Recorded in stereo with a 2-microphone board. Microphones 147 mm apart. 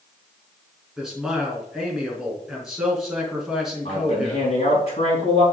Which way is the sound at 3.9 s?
45° left (ahead or behind).